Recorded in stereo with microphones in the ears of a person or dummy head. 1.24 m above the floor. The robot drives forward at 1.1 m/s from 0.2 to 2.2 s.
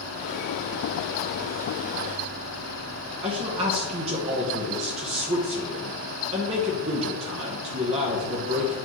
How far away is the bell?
I don't hear a bell.